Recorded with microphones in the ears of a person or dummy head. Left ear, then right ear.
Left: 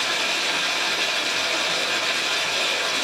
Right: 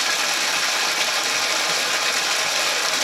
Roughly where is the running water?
Right.